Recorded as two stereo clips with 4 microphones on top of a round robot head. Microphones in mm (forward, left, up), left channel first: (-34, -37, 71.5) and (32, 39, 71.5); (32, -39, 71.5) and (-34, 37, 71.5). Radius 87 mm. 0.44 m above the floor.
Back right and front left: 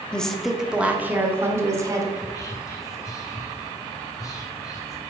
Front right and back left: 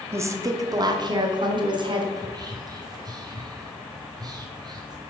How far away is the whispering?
About 1.7 m.